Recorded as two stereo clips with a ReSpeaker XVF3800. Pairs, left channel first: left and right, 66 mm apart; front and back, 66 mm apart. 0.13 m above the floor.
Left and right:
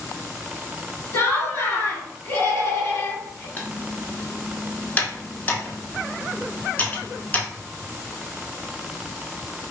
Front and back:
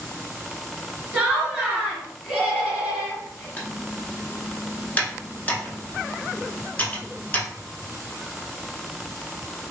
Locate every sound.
1.1 s laughter: 115° left, 1.1 m
3.6 s typing on a keyboard: 40° left, 0.6 m